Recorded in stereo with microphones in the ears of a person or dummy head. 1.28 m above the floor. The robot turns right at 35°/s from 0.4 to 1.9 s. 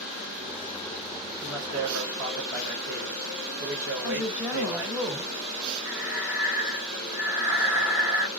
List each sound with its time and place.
1.4 s a man speaking: 75° right (ahead or behind), 3 m; by 5.0 s 55° right (ahead or behind), 3 m
4.0 s a woman speaking: 15° right (ahead or behind), 1.4 m
5.8 s breathing: 20° right (ahead or behind), 1.0 m